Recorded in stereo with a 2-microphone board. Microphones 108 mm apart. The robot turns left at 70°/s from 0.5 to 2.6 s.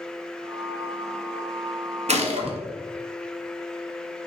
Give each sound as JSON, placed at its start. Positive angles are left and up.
{"t": 2.1, "sound": "a gunshot", "azimuth_deg": -85, "distance_m": 1.6}